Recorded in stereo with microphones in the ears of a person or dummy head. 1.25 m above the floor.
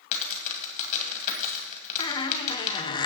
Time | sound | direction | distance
0.1 | a dropped coin | 45° left (ahead or behind) | 2 m
2.0 | a squeak | 25° left (ahead or behind) | 0.7 m